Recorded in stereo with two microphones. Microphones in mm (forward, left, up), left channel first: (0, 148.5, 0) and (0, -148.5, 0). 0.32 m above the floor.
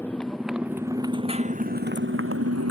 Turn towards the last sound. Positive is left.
turn(degrees=-60)  # may be behind; listen again after turning